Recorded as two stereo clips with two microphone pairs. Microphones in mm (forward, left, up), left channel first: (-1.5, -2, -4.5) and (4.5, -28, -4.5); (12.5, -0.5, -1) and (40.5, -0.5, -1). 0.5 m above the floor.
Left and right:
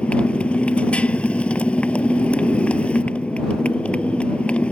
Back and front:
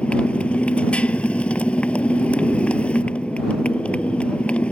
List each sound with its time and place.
0.0 s a motorcycle: 140° left